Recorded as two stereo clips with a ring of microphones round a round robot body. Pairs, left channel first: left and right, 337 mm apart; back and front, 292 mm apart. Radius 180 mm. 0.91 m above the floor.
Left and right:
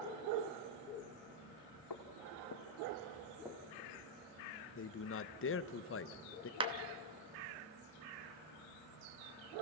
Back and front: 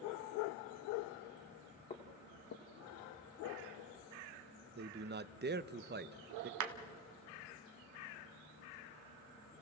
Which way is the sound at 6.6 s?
15° right.